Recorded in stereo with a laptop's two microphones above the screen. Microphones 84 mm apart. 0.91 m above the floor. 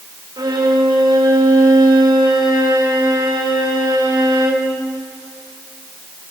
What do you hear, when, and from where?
0.4 s a violin: 65° right (ahead or behind), 3.5 m